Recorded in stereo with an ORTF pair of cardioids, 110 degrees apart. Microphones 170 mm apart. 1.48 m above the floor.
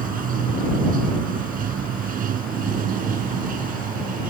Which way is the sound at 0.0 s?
55° right.